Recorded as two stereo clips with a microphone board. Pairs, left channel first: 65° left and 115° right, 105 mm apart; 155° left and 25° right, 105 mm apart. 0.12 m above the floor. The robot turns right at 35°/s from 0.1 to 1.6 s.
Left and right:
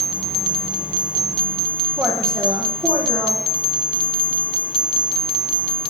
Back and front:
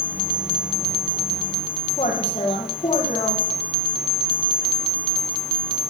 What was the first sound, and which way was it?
A woman speaking, 175° right.